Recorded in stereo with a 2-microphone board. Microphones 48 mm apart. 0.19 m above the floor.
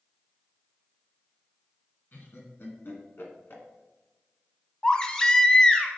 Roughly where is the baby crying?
Centre.